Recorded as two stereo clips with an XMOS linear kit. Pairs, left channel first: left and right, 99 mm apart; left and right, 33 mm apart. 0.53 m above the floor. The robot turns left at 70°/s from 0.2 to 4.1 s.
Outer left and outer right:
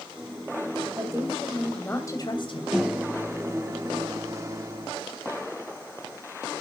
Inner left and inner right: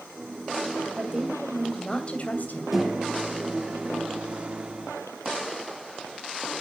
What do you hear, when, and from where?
1.0 s a woman speaking: 135° right, 3 m; by 2.6 s 105° left, 3 m
2.7 s a microwave: 10° right, 0.8 m; by 4.9 s 105° right, 0.8 m